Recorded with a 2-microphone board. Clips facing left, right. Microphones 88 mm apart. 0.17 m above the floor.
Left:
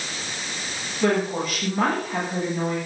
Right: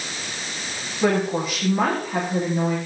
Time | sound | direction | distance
1.0 | a woman speaking | 10° right (ahead or behind) | 5.5 m